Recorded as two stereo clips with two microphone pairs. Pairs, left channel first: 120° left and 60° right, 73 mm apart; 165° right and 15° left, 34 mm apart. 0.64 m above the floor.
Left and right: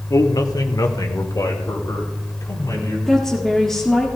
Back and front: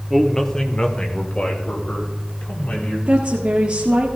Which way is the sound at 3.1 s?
40° left.